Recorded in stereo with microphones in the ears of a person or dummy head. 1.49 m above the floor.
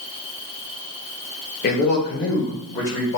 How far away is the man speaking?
About 1.0 m.